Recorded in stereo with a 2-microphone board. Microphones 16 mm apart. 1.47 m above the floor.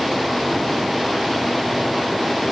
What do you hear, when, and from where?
Only background noise.